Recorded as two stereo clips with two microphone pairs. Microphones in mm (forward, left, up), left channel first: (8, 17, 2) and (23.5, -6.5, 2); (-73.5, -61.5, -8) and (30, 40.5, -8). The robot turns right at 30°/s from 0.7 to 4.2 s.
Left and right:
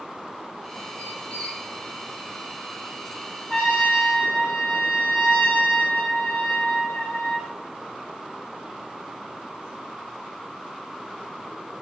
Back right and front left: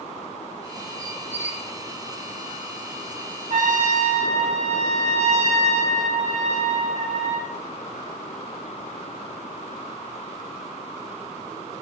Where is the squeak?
140° left, 1.9 m; by 1.7 s 160° left, 1.9 m.